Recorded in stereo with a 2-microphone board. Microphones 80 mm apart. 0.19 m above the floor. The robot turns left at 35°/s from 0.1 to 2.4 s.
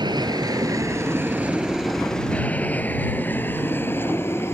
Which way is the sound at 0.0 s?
65° right (ahead or behind).